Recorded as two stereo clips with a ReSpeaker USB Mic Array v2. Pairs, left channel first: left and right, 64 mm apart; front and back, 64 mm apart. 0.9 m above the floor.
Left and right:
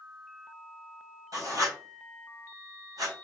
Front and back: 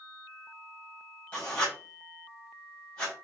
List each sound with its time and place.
1.3 s writing: 65° right, 3.5 m